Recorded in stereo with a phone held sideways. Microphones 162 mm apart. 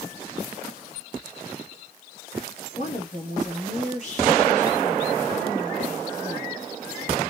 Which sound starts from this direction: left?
A woman speaking, at 2.8 s.